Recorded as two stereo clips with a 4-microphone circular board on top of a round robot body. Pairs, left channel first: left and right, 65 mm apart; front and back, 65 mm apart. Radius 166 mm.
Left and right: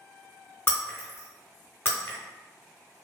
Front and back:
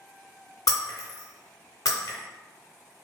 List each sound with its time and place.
0.7 s breaking glass: 35° left, 0.7 m